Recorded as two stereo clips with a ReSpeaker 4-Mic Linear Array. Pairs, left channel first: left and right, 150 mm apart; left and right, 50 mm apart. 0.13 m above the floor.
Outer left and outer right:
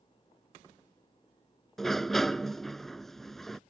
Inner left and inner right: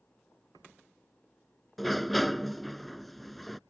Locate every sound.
1.8 s a sliding door: centre (ahead or behind)